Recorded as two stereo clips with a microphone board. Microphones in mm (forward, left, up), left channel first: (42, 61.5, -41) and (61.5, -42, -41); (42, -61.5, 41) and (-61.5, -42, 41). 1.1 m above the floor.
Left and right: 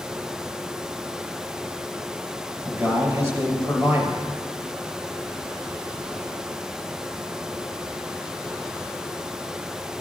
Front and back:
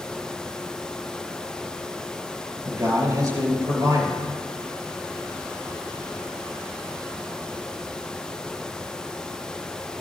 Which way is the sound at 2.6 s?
140° right.